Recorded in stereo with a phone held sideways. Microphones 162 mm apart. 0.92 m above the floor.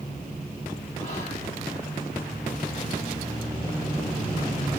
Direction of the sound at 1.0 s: 45° left (ahead or behind).